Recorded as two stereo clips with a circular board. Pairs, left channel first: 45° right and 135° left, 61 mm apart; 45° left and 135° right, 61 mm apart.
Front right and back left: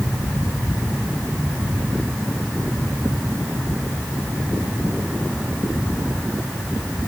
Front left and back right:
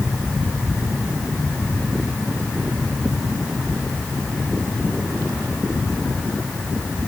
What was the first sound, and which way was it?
Only background noise.